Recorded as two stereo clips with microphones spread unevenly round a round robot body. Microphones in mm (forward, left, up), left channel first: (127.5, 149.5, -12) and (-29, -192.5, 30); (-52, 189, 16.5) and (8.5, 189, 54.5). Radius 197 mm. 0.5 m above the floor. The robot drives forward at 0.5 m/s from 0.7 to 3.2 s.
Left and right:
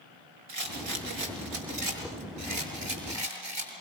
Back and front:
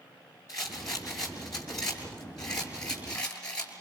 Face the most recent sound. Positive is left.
turn(degrees=-165)